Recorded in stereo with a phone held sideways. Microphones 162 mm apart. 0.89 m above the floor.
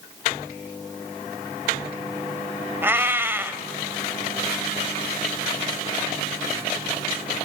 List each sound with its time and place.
2.8 s a cat meowing: 15° right (ahead or behind), 1.3 m